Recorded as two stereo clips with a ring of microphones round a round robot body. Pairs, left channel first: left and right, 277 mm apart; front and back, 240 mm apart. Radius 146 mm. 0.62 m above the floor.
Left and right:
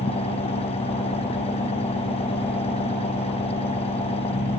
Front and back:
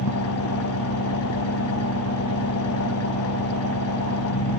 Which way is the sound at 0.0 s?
20° left.